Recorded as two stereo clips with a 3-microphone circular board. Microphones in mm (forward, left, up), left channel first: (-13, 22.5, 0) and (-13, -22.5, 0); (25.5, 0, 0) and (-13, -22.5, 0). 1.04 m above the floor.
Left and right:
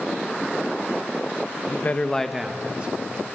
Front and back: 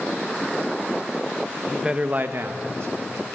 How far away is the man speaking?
About 1.1 m.